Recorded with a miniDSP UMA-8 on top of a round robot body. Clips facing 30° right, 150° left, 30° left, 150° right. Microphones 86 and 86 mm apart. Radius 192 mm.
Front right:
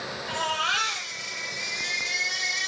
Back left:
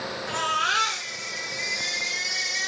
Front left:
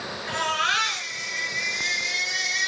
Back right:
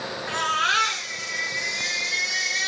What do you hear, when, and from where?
0.3 s a baby crying: 155° left, 7 m